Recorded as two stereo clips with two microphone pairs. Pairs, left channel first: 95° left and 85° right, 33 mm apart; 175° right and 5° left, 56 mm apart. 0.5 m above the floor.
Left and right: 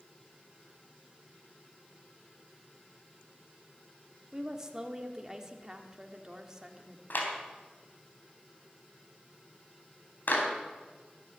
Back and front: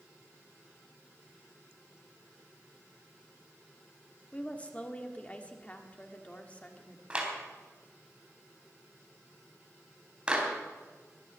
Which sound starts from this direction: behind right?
A woman speaking, at 4.3 s.